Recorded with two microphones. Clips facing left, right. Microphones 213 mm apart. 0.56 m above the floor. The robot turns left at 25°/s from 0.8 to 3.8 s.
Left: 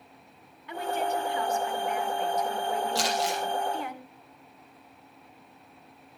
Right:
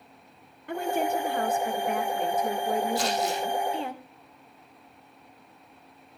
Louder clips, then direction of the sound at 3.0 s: Right 2 dB; 85° left.